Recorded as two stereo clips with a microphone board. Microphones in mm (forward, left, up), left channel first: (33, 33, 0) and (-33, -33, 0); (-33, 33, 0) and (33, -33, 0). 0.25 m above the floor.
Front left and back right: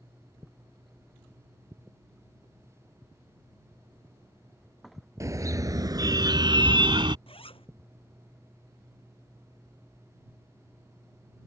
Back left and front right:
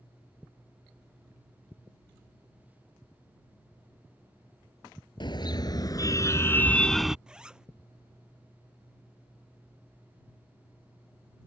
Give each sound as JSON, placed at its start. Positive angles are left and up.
{"t": 5.2, "sound": "a car horn", "azimuth_deg": 170}
{"t": 7.3, "sound": "a zipper", "azimuth_deg": 35}